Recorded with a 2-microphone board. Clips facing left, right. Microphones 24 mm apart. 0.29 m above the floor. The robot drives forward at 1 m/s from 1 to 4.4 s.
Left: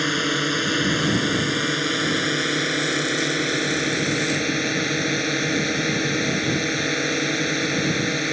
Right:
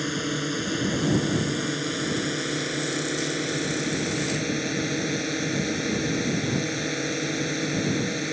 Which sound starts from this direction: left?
A drone, at 0.0 s.